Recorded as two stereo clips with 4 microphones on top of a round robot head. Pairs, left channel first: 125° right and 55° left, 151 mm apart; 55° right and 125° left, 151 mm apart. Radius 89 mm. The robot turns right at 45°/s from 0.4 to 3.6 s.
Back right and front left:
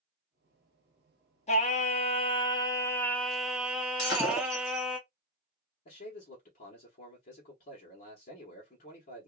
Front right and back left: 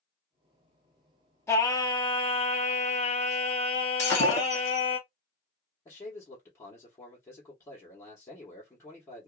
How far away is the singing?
About 0.8 m.